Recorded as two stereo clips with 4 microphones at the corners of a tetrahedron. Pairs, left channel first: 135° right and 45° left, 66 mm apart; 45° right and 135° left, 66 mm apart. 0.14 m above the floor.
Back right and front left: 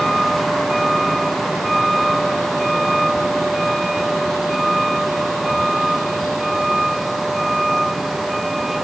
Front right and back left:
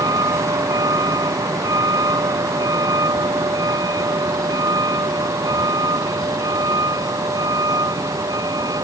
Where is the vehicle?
135° left; by 8.8 s 130° left.